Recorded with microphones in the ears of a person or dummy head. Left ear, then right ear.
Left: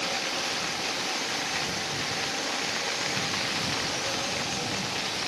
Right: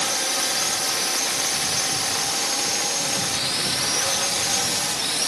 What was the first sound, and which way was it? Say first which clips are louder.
A drone: right 5 dB; 65° right (ahead or behind).